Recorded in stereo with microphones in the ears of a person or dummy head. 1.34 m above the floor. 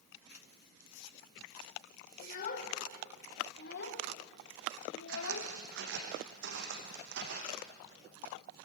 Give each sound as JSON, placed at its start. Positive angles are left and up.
{"t": 2.2, "sound": "a child speaking", "side_deg": 45, "distance_m": 3.5}
{"t": 5.1, "sound": "footsteps", "side_deg": -70, "distance_m": 4.5}